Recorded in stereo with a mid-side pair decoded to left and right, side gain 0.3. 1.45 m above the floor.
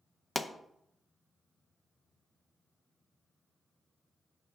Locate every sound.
0.3 s a pop: 35° left, 0.7 m